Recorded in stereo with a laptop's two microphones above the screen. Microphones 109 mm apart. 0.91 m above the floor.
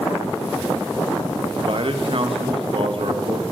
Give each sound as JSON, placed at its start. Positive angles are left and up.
{"t": 1.6, "sound": "a man speaking", "side_deg": -55, "distance_m": 0.8}